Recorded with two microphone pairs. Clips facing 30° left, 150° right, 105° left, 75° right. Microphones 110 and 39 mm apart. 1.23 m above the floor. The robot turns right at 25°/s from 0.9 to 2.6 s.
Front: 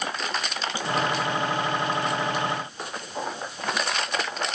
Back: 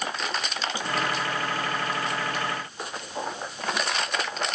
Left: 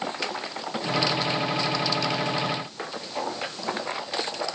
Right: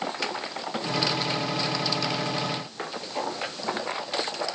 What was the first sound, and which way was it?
Only background noise.